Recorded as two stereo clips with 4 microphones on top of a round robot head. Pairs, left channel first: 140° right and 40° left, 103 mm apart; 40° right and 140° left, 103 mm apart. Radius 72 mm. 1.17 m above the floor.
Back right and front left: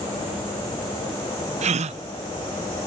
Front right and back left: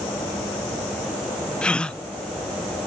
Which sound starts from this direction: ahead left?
A gasp, at 1.6 s.